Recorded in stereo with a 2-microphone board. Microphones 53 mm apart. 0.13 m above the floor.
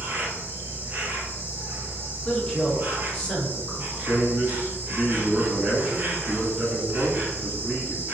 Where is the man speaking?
30° right (ahead or behind), 1.2 m.